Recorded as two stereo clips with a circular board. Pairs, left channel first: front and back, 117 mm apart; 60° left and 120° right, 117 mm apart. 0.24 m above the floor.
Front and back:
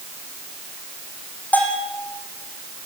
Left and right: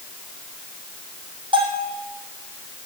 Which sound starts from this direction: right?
A bell, at 1.5 s.